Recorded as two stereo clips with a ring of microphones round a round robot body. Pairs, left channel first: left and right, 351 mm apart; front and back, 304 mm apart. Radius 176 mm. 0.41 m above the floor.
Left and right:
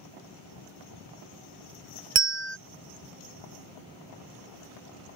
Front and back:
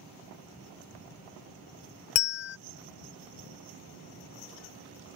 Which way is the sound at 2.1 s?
30° right.